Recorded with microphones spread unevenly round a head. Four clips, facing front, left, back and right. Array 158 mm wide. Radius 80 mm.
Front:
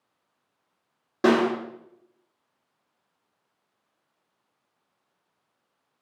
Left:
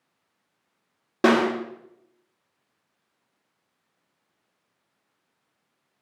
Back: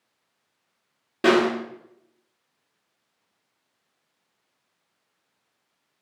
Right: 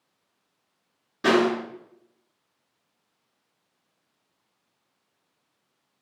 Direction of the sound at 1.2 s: 85° left.